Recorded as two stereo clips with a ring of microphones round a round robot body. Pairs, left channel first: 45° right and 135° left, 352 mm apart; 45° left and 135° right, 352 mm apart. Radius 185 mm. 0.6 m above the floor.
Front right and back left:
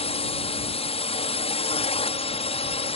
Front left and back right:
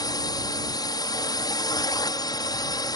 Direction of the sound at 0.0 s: 10° right.